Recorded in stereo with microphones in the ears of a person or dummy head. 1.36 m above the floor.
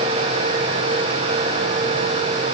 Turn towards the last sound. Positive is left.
No sound to turn to.